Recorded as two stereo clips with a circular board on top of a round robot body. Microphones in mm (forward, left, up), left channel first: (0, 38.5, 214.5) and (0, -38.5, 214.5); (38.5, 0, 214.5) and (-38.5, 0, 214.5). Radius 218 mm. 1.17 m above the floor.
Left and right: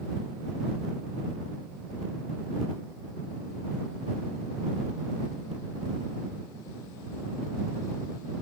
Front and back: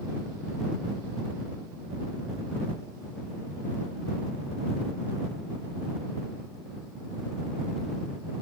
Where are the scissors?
No scissors in this recording.